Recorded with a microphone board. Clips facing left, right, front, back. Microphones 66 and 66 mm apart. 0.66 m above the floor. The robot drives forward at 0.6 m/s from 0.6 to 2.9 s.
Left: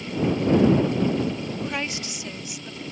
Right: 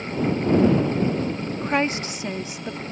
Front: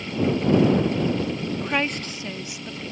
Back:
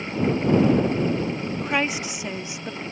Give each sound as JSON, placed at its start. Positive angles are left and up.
{"t": 1.6, "sound": "a woman speaking", "azimuth_deg": -95}